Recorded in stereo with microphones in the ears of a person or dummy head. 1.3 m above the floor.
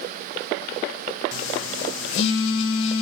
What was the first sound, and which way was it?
A phone buzzing, 75° left (ahead or behind).